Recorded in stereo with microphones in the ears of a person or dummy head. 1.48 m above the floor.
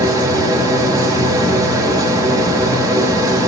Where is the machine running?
20° right (ahead or behind), 1.3 m.